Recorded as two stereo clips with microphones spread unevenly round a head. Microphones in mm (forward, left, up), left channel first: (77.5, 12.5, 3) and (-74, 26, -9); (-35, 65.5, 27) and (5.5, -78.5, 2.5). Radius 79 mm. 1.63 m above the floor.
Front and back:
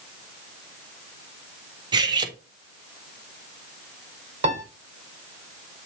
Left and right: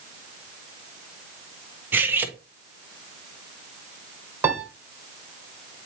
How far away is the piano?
About 1.7 m.